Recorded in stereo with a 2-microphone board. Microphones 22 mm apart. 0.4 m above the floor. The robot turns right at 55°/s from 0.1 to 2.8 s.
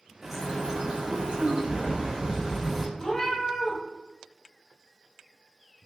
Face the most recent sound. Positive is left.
turn(degrees=20)  # may be behind; listen again after turning